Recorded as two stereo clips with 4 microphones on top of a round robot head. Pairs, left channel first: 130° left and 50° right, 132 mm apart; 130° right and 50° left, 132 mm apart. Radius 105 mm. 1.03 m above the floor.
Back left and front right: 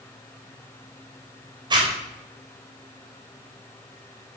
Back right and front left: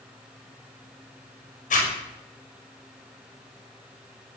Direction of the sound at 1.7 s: 105° right.